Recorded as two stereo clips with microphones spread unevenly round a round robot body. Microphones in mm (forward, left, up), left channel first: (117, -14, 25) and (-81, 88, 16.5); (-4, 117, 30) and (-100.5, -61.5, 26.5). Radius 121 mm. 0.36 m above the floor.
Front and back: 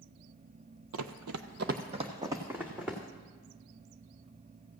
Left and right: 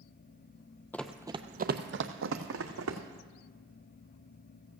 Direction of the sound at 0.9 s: 140° left.